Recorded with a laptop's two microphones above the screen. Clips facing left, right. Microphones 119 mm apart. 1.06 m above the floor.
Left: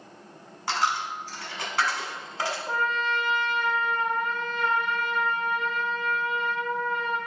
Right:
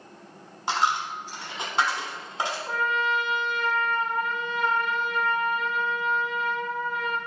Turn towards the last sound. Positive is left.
turn(degrees=-5)  # may be behind; listen again after turning